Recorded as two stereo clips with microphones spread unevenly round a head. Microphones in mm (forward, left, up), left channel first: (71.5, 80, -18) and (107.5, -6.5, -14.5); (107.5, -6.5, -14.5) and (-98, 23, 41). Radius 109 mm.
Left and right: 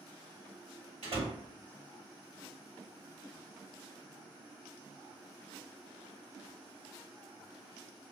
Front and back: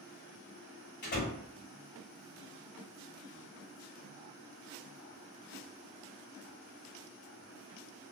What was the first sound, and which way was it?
A door slam, 55° right.